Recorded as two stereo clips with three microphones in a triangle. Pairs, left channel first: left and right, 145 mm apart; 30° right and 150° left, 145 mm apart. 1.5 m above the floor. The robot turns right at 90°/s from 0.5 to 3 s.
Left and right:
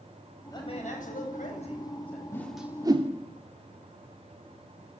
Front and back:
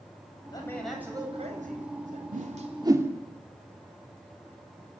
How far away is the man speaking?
About 9 m.